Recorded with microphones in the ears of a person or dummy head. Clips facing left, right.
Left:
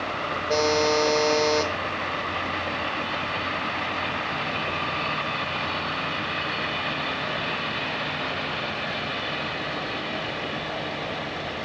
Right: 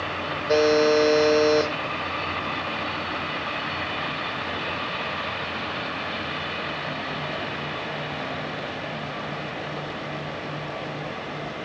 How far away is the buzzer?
About 1.0 m.